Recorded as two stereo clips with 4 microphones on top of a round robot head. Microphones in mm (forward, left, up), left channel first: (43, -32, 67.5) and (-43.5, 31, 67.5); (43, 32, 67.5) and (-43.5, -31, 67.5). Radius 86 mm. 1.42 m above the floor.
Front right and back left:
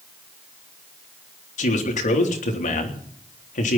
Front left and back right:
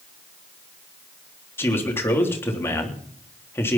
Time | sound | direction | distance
1.6 | a man speaking | 35° right | 3.5 m